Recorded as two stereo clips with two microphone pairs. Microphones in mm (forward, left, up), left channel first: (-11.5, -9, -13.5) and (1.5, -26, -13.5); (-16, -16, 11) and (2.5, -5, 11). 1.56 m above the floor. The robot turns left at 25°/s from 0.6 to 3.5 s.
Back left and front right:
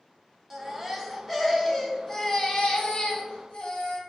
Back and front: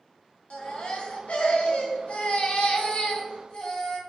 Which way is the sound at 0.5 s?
135° right.